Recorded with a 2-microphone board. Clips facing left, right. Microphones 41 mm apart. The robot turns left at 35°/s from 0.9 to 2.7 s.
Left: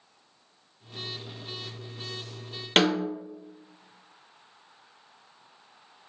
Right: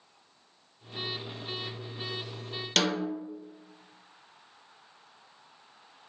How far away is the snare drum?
About 0.7 m.